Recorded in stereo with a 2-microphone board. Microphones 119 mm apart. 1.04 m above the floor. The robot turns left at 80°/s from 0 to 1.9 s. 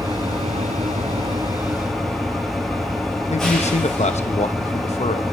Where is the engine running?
30° right, 9 m; by 5.3 s 175° left, 9 m.